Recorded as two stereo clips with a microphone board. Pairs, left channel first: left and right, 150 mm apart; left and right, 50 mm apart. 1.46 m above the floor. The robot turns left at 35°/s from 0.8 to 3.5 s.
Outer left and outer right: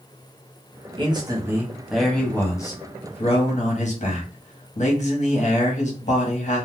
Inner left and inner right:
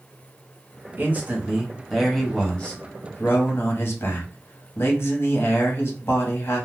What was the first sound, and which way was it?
A man speaking, 145° right.